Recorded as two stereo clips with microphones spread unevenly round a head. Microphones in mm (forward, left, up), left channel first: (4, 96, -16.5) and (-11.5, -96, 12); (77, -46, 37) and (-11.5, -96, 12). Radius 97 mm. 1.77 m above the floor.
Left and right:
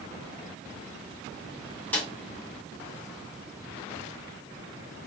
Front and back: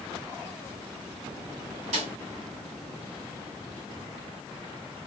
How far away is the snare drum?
About 2.5 m.